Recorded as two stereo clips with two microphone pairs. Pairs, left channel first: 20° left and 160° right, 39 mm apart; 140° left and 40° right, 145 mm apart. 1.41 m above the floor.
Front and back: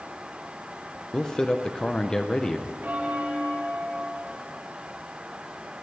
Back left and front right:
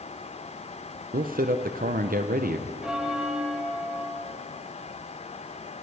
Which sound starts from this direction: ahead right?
A man speaking, at 1.1 s.